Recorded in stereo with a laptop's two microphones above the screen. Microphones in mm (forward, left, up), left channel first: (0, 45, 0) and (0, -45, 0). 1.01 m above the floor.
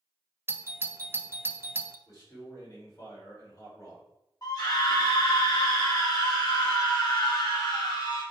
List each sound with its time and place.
0.5 s a doorbell: 25° right (ahead or behind), 0.7 m
2.1 s a man speaking: 40° left (ahead or behind), 3.5 m
4.4 s a scream: 40° left (ahead or behind), 1.6 m